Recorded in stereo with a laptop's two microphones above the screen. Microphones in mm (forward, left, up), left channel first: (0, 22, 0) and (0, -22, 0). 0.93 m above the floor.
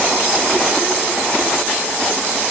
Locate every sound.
Only background noise.